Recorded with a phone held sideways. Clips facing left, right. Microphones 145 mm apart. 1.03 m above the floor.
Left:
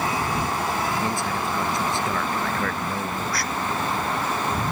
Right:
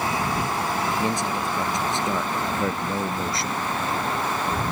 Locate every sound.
1.0 s a man speaking: 20° right (ahead or behind); by 3.6 s 25° right (ahead or behind)